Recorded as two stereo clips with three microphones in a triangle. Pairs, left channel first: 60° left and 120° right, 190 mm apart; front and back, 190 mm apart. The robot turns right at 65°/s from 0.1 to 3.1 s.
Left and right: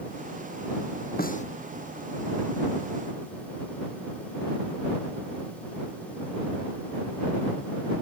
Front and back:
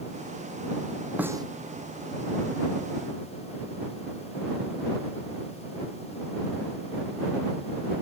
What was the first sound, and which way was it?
A snare drum, 95° left.